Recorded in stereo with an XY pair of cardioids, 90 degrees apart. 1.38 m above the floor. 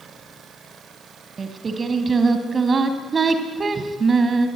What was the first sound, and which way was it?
Singing, 40° right.